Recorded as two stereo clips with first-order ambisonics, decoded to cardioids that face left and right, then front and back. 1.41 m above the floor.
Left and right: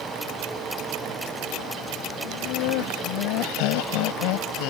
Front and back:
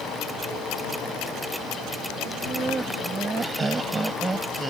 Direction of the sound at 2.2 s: 110° left.